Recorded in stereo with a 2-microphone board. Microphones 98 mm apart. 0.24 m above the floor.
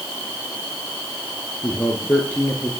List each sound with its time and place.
1.6 s a man speaking: 20° left (ahead or behind), 3 m; by 2.7 s 15° left (ahead or behind), 4 m